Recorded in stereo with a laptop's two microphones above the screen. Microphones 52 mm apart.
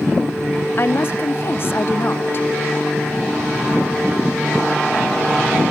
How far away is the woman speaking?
About 0.6 m.